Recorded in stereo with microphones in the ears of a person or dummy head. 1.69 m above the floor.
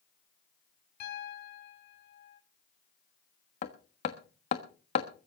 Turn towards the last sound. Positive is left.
turn(degrees=25)  # may be behind; listen again after turning